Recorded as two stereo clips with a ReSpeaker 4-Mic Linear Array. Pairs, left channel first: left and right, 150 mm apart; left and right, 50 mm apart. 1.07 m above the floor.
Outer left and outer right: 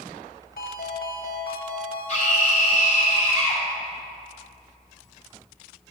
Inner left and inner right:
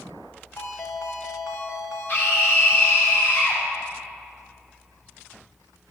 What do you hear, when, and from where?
0.6 s a ringtone: 85° left, 1.2 m
2.1 s a scream: 45° left (ahead or behind), 3 m